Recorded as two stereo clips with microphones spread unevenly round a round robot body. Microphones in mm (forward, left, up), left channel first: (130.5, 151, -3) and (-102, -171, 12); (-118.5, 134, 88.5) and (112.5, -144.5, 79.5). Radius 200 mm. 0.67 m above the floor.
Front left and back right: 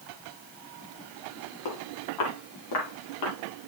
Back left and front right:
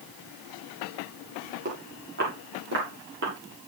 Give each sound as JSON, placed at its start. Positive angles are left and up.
{"t": 1.6, "sound": "footsteps", "azimuth_deg": 15, "distance_m": 8.0}